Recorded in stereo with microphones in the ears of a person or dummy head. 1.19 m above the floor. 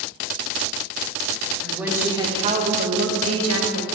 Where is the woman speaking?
Centre (ahead or behind), 2.5 m; by 3.8 s 75° right (ahead or behind), 2 m.